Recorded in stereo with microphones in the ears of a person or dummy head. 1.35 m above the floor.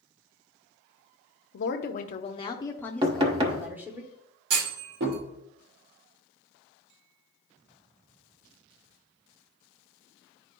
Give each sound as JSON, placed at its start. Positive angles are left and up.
{"t": 1.5, "sound": "a woman speaking", "side_deg": 60, "distance_m": 0.8}
{"t": 3.0, "sound": "knocking", "side_deg": -25, "distance_m": 0.8}
{"t": 4.5, "sound": "a clunk", "side_deg": -65, "distance_m": 2.5}